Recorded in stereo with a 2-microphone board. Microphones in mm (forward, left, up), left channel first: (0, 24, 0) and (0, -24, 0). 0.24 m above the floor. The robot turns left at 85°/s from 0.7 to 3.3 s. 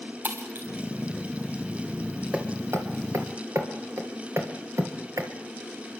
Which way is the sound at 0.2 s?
35° right (ahead or behind).